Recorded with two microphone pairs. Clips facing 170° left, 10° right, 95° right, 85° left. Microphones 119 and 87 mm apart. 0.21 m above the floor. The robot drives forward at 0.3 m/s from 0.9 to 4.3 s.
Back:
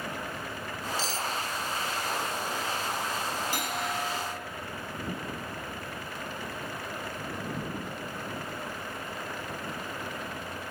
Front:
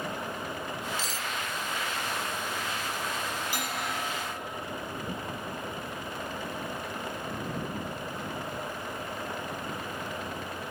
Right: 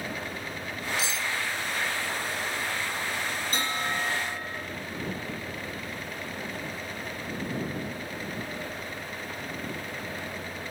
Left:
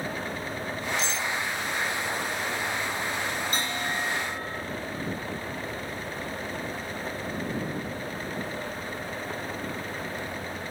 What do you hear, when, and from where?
1.0 s cutlery clinking: 15° right, 1.0 m
3.5 s a bell: 150° right, 6 m